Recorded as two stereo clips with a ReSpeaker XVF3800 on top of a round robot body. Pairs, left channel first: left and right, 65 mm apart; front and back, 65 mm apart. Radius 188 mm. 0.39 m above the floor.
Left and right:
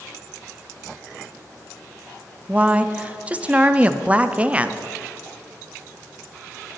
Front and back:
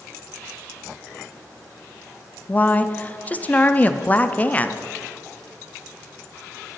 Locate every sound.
2.5 s a woman speaking: 40° right, 0.8 m